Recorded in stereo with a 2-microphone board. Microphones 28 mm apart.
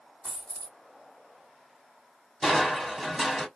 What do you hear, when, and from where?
0.2 s a dropped coin: 20° right (ahead or behind), 1.5 m
2.4 s crushing: 5° right (ahead or behind), 1.2 m